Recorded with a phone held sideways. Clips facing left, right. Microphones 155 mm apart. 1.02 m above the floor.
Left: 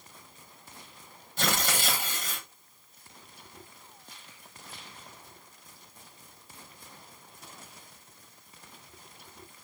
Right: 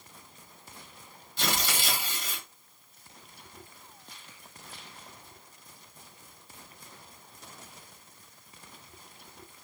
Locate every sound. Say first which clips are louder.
1.4 s tearing paper: left 2 dB; 50° left (ahead or behind), 1.2 m